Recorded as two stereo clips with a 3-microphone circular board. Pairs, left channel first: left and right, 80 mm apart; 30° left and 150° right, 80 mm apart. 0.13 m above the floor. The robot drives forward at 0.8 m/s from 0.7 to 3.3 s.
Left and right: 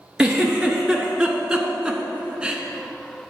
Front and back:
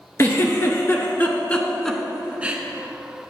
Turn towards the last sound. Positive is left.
turn(degrees=-165)